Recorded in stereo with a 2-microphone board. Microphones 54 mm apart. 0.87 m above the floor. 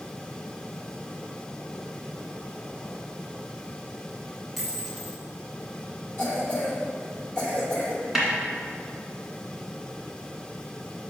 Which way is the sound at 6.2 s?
30° left (ahead or behind).